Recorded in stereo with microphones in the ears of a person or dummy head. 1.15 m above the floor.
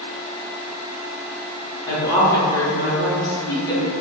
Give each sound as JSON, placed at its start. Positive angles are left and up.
{"t": 1.9, "sound": "a woman speaking", "side_deg": 20, "distance_m": 0.8}